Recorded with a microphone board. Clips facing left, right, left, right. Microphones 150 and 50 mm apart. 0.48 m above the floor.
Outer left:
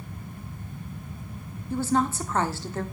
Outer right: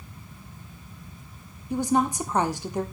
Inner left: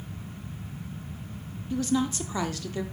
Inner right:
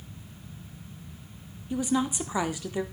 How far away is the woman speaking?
About 0.7 m.